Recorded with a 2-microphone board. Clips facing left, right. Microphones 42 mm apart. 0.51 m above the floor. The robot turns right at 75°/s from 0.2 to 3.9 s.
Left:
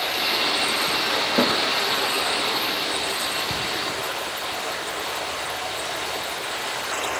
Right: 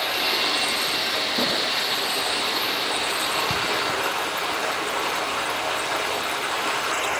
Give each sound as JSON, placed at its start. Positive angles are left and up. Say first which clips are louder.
{"t": 0.0, "sound": "running water", "louder": "even", "azimuth_deg": -5, "distance_m": 4.0}
{"t": 1.4, "sound": "a snare drum", "louder": "left 6 dB", "side_deg": 45, "distance_m": 7.5}